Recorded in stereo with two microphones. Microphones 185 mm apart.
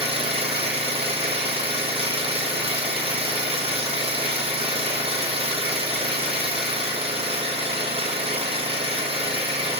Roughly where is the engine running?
Right.